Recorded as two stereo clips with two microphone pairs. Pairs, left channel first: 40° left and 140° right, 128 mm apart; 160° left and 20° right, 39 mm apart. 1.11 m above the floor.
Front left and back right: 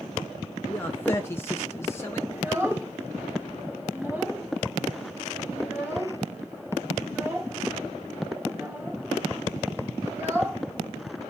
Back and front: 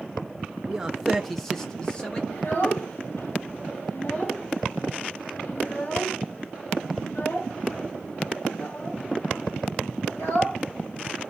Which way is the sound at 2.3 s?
150° left.